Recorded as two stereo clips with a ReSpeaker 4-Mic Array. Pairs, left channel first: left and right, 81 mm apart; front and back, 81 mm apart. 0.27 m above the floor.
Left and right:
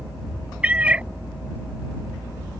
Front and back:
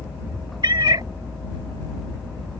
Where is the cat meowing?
165° right.